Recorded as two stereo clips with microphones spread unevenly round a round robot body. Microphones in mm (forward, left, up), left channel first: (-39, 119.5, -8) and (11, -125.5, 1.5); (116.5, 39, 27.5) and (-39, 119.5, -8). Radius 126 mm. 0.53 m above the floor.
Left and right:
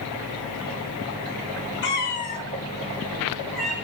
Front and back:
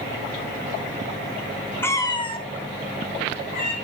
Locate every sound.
1.8 s a cat meowing: 55° left, 0.8 m; by 3.8 s 10° left, 1.6 m